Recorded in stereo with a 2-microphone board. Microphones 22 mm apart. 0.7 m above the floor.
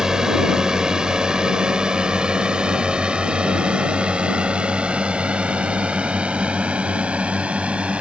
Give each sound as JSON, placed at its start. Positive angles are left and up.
{"t": 0.0, "sound": "a drone", "side_deg": -30}